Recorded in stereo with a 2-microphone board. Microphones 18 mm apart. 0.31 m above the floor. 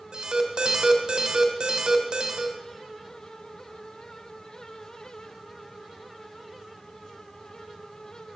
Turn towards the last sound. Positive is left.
turn(degrees=-55)  # may be behind; listen again after turning